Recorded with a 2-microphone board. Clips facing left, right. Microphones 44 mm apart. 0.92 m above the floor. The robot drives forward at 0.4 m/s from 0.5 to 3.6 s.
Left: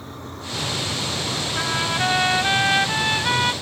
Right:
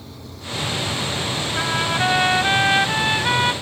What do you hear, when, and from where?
0.0 s a vehicle: 40° left (ahead or behind)
1.6 s a trumpet: 10° right (ahead or behind); by 3.5 s 5° right (ahead or behind)